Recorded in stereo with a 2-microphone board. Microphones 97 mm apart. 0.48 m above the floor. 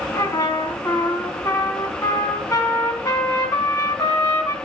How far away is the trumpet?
About 4 m.